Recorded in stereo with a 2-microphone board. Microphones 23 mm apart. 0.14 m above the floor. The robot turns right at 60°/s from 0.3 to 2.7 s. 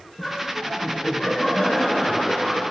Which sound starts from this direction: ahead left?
Laughter, at 0.2 s.